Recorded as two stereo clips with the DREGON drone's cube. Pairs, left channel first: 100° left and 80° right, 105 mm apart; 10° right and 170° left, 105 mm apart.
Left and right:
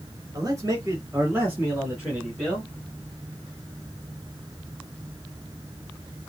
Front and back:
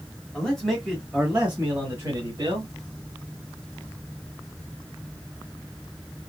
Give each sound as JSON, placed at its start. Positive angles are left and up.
{"t": 0.3, "sound": "a man speaking", "azimuth_deg": -85, "distance_m": 1.8}